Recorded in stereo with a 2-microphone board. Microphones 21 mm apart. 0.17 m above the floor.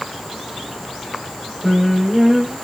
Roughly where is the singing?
Centre.